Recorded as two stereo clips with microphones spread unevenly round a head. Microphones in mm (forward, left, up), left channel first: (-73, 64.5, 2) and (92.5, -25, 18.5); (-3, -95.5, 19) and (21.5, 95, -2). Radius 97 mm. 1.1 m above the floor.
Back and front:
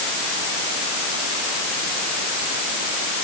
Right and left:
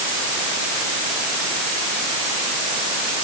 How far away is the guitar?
No guitar in this recording.